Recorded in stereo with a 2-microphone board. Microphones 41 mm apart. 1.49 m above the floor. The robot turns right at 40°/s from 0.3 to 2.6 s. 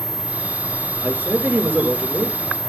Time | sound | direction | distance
1.0 | a man speaking | 140° right | 5.5 m